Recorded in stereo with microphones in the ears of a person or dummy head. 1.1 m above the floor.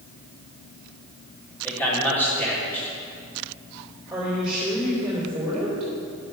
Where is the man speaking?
10° left (ahead or behind), 3.5 m.